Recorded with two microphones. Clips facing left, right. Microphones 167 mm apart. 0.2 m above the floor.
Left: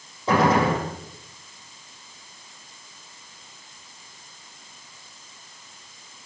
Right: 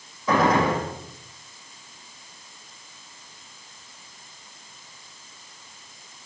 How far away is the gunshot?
About 5.5 m.